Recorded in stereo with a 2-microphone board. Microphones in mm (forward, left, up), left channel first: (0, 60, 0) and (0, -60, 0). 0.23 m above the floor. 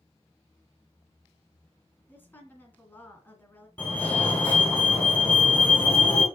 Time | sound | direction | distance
2.1 | a woman speaking | 15° left (ahead or behind) | 2.5 m
3.8 | a fire alarm | 15° left (ahead or behind) | 3 m